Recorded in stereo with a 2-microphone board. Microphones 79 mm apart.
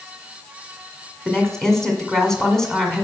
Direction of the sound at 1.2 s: 5° left (ahead or behind).